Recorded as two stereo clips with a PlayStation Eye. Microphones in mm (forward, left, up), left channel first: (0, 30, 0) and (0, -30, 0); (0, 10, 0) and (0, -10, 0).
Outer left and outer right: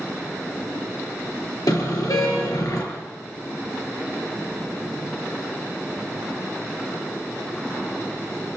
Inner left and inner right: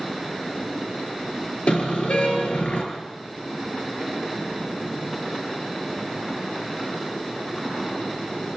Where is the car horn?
80° left, 6.5 m.